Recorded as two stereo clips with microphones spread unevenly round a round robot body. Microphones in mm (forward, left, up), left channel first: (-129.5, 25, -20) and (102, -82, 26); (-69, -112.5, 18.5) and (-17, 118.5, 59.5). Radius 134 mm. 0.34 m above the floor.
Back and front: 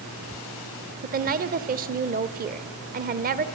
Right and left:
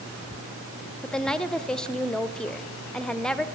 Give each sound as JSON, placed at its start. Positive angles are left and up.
{"t": 1.0, "sound": "a woman speaking", "azimuth_deg": -45, "distance_m": 0.8}